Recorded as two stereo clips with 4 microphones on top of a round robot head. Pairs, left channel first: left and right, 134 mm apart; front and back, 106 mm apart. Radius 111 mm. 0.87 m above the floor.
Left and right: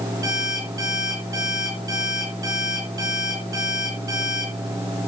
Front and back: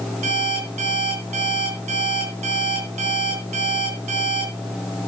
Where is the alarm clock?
160° right, 6 m.